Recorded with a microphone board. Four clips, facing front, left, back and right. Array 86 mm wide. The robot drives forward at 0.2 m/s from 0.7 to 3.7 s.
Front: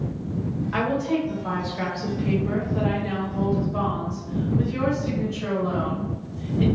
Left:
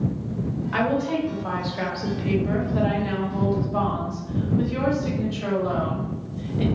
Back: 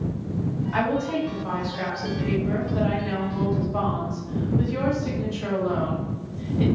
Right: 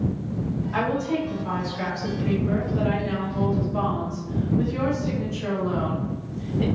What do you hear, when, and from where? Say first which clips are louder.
0.7 s a woman speaking: left 2 dB, front 1 dB; 70° left, 1.2 m; by 6.7 s 115° left, 1.2 m